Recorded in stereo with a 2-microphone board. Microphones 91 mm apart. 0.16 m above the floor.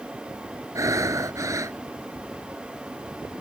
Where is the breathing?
40° right (ahead or behind).